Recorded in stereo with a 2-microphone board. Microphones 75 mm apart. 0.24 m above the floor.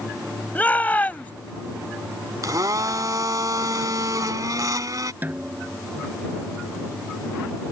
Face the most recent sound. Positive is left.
turn(degrees=-25)  # may be behind; listen again after turning